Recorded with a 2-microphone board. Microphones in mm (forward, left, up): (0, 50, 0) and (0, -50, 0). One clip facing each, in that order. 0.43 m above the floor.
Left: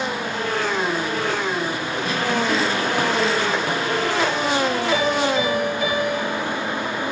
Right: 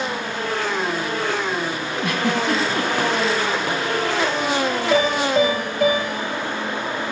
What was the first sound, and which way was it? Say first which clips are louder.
A giggle: right 1 dB; 75° right (ahead or behind).